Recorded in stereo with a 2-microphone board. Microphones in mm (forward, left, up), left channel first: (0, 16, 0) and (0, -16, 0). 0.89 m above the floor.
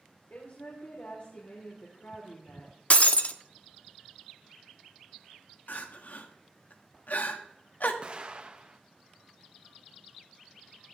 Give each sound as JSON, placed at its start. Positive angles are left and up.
{"t": 0.3, "sound": "a woman speaking", "side_deg": 75, "distance_m": 2.5}
{"t": 2.9, "sound": "breaking glass", "side_deg": 45, "distance_m": 0.7}
{"t": 5.7, "sound": "crying", "side_deg": 70, "distance_m": 1.2}
{"t": 8.0, "sound": "an explosion", "side_deg": -35, "distance_m": 1.0}